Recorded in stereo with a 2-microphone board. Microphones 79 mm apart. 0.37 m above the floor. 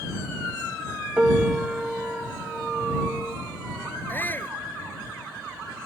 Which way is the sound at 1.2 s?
10° right (ahead or behind).